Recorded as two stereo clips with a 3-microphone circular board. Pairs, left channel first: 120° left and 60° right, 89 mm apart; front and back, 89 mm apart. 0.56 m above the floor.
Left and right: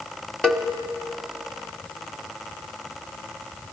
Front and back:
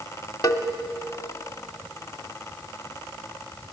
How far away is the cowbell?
About 1.0 m.